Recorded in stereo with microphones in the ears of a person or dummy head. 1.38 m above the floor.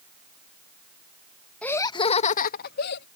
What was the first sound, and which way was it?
Laughter, 5° left (ahead or behind).